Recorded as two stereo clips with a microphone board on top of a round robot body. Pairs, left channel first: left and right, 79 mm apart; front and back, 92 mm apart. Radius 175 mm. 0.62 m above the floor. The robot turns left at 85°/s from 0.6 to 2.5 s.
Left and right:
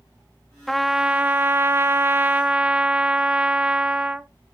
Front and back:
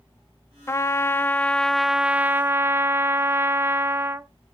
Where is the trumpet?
5° left, 0.7 m; by 4.3 s 150° right, 0.7 m.